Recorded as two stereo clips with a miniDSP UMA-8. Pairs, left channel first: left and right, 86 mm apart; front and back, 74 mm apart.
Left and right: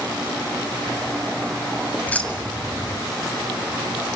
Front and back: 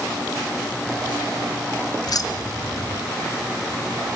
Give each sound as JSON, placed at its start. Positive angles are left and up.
{"t": 2.1, "sound": "keys jangling", "azimuth_deg": 20, "distance_m": 1.4}